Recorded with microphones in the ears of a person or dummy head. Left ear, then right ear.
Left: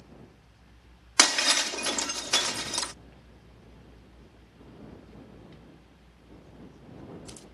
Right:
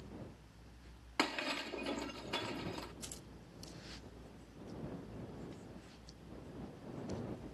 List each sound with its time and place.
1.2 s breaking glass: 65° left (ahead or behind)